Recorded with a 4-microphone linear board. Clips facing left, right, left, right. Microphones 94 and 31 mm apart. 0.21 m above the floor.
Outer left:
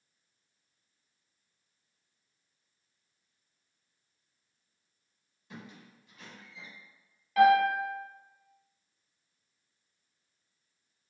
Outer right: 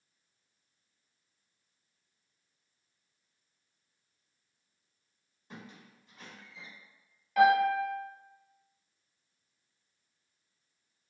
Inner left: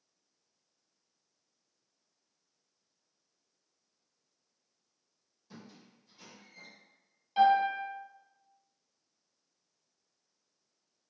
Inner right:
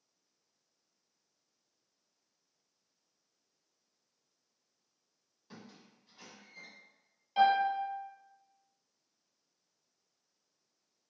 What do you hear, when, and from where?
5.5 s a squeak: 35° right (ahead or behind), 1.0 m
7.4 s a piano: 5° right (ahead or behind), 1.2 m